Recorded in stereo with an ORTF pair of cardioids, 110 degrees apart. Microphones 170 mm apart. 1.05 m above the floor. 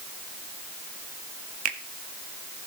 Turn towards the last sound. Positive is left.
turn(degrees=-50)